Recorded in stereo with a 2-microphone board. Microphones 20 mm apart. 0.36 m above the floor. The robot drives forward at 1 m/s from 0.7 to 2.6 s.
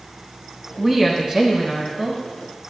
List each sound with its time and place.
0.8 s a woman speaking: 25° right (ahead or behind), 2.5 m; by 2.2 s 20° right (ahead or behind), 4 m